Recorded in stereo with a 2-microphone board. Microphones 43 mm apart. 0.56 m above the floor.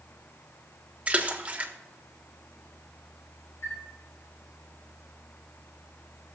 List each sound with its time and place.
1.1 s a splash: 25° right (ahead or behind), 1.2 m
3.6 s a chime: 65° left (ahead or behind), 3 m